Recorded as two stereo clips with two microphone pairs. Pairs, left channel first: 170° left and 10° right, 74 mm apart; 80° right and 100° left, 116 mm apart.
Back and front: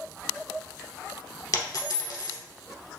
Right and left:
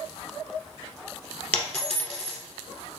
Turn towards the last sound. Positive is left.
turn(degrees=-160)